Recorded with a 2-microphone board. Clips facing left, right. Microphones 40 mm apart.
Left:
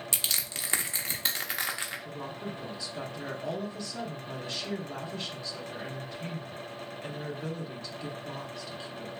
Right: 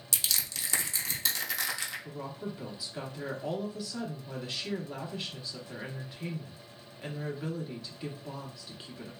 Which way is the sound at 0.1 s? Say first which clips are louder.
Right 1 dB; 30° left (ahead or behind).